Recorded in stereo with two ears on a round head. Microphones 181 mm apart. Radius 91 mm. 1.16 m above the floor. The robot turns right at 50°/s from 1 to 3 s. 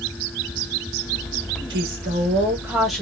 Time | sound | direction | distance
1.7 | a woman speaking | 60° right | 1.3 m